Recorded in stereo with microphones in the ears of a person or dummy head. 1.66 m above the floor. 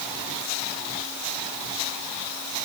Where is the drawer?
I don't hear a drawer.